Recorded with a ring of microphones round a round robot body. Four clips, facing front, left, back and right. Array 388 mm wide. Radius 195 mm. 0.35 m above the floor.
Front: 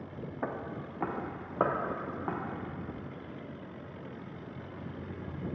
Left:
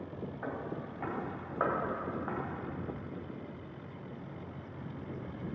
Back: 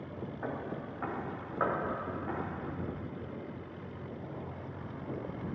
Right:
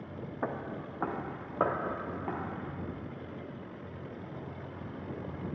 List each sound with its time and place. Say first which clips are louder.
0.4 s footsteps: right 4 dB, front 2 dB; 55° right, 1.6 m; by 2.4 s 20° right, 2.5 m